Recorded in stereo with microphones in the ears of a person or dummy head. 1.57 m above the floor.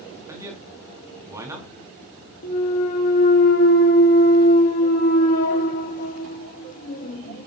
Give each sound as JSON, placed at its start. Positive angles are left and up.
{"t": 0.3, "sound": "a man speaking", "side_deg": -15, "distance_m": 3.5}
{"t": 2.4, "sound": "a clunk", "side_deg": 45, "distance_m": 2.0}